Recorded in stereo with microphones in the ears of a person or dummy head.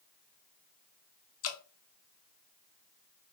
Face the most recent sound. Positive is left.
turn(degrees=70)  # may be behind; listen again after turning